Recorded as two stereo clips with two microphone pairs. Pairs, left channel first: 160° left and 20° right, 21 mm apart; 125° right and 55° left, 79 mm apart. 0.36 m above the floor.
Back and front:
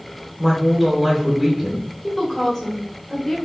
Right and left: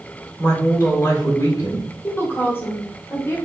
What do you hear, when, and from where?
0.4 s a woman speaking: 95° right, 1.6 m
2.0 s a woman speaking: 150° right, 1.5 m